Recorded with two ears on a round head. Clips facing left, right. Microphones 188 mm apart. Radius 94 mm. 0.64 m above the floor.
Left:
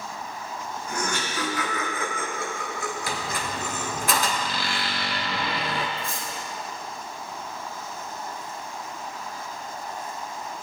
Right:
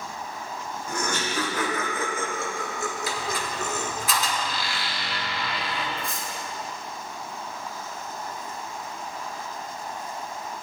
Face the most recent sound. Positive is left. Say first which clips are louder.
# even
turn(degrees=-15)  # may be behind; listen again after turning